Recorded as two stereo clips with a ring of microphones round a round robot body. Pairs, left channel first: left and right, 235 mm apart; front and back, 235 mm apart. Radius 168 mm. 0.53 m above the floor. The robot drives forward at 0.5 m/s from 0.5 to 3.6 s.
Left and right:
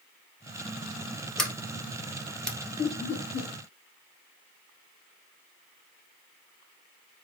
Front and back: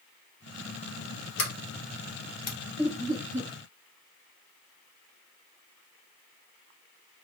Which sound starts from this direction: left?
Laughter, at 2.8 s.